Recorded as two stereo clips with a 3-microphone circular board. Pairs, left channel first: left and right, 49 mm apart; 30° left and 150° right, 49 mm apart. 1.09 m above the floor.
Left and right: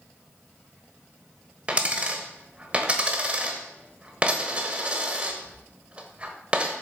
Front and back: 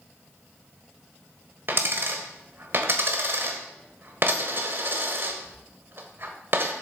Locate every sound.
1.7 s a dropped coin: 150° right, 1.2 m